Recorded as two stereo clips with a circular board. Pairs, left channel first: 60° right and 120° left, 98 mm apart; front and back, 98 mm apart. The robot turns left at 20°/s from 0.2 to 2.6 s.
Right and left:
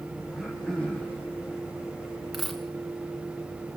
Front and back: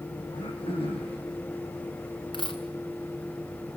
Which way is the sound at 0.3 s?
30° left.